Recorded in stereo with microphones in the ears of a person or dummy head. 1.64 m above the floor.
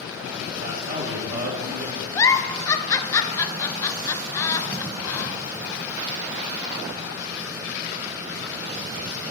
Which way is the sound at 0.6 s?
60° right (ahead or behind).